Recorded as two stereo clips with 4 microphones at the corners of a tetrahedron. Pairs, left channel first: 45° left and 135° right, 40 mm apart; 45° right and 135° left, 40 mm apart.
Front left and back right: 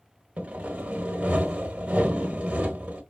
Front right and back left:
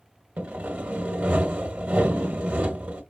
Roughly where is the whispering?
No whispering in this recording.